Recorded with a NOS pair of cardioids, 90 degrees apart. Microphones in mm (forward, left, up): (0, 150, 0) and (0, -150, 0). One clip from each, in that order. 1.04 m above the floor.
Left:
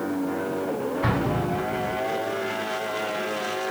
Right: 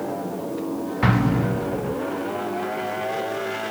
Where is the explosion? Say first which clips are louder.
Right 6 dB; 60° right, 0.9 m.